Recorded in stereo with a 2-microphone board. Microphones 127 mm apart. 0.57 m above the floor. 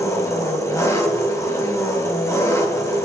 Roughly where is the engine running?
Left.